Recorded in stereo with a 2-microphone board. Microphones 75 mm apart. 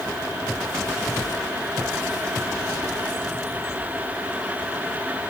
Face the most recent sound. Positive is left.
No sound to turn to.